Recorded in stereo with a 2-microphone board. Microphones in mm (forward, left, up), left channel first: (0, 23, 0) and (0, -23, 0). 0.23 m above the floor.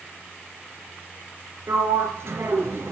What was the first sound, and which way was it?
A sliding door, 70° right (ahead or behind).